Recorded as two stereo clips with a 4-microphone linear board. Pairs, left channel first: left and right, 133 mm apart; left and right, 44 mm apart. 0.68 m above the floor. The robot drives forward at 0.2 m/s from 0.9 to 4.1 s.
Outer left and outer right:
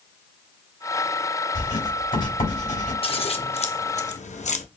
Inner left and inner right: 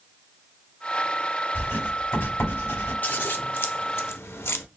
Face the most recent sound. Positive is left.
turn(degrees=65)  # may be behind; listen again after turning